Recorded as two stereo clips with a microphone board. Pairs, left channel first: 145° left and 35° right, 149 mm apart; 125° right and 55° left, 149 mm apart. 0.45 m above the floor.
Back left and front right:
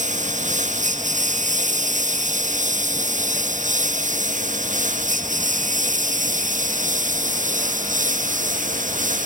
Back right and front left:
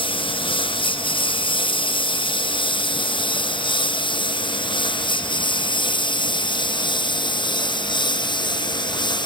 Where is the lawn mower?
70° right; by 9.3 s 65° right.